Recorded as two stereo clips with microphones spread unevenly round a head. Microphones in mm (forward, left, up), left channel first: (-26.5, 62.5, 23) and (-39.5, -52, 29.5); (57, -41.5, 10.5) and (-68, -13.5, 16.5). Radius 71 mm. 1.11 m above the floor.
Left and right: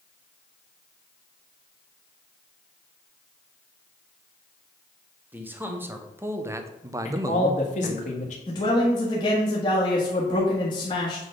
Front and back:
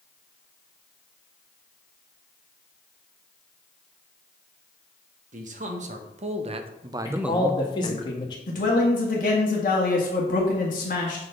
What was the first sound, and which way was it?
A man speaking, 170° right.